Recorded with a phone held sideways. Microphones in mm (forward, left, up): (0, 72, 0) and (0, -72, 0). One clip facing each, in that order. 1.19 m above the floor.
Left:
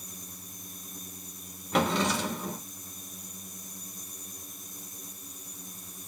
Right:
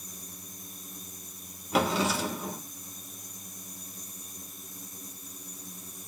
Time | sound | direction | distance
1.7 | a drawer | 5° right (ahead or behind) | 3 m